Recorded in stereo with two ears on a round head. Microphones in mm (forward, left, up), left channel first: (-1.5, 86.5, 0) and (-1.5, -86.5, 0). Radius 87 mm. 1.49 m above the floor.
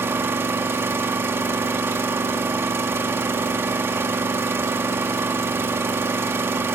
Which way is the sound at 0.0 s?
10° right (ahead or behind).